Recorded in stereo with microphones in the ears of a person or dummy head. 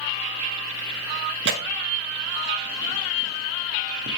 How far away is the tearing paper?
About 1.0 m.